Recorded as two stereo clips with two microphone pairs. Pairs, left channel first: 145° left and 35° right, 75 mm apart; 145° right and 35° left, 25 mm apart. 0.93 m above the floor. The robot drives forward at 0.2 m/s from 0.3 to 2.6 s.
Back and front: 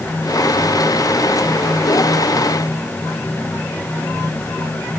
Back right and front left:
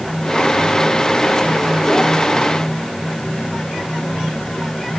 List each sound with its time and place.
Only background noise.